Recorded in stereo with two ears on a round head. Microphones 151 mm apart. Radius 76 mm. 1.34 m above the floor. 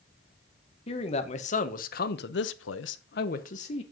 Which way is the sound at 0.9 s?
35° left (ahead or behind).